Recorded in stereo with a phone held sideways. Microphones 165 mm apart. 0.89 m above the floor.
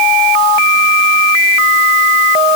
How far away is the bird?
No bird in this recording.